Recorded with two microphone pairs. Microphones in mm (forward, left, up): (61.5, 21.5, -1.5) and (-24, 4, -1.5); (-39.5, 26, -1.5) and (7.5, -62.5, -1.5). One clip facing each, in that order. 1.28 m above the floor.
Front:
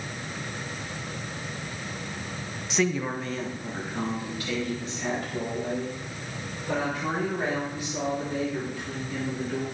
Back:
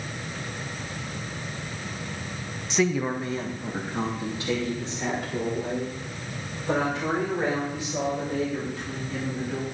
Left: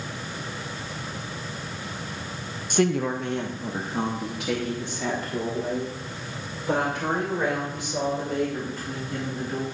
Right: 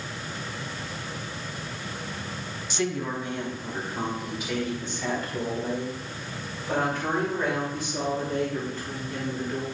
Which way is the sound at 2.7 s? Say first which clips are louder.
Back 2 dB, left 6 dB; 95° left.